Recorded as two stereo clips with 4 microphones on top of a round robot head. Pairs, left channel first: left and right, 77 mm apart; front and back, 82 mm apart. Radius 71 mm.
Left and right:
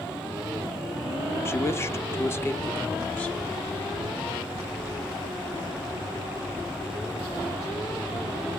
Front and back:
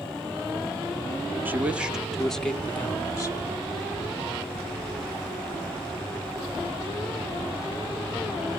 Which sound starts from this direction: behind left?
A man speaking, at 1.4 s.